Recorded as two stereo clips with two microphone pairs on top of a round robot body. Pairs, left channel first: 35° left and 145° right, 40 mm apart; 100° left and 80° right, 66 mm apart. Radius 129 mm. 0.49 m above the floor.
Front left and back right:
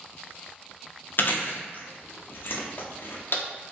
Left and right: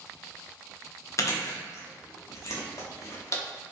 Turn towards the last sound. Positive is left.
turn(degrees=60)